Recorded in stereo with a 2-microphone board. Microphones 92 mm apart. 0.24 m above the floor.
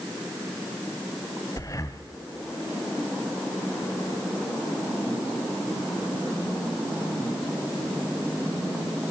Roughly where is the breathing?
Left.